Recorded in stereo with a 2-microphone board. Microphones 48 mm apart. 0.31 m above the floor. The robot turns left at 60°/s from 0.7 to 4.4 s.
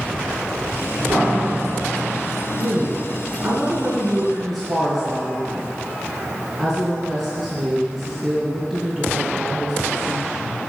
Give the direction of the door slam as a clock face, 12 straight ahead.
4 o'clock.